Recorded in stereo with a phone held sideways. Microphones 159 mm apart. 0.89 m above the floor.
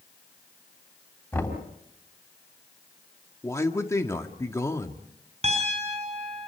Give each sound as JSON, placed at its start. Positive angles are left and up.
{"t": 1.3, "sound": "knocking", "side_deg": 10, "distance_m": 3.5}
{"t": 3.4, "sound": "a man speaking", "side_deg": 20, "distance_m": 1.7}
{"t": 5.4, "sound": "a piano", "side_deg": -45, "distance_m": 6.0}